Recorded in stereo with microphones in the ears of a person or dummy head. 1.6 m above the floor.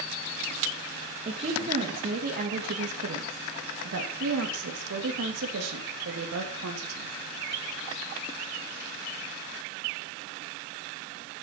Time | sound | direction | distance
1.2 | a woman speaking | 35° right (ahead or behind) | 2.5 m